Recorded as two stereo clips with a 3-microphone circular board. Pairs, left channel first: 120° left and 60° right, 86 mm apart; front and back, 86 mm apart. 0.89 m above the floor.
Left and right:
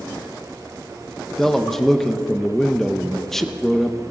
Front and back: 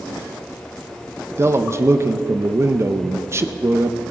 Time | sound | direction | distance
1.4 | a man speaking | 155° right | 0.7 m